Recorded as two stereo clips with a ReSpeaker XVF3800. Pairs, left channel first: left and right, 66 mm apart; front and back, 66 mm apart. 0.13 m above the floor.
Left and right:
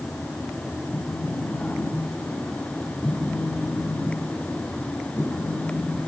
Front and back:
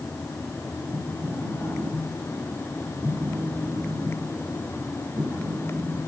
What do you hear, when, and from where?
0.9 s a phone buzzing: 145° left, 4.5 m